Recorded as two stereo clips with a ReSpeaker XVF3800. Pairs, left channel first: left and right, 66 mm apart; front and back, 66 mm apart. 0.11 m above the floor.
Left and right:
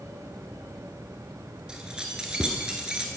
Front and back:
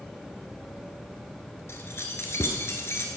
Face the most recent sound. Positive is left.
turn(degrees=-15)